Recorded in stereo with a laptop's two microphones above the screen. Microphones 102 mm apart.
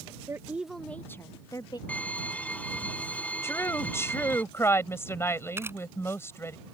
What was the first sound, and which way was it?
A woman speaking, 30° right (ahead or behind).